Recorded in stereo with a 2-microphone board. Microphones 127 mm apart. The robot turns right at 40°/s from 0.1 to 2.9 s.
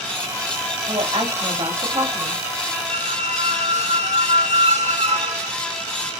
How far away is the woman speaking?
About 0.8 m.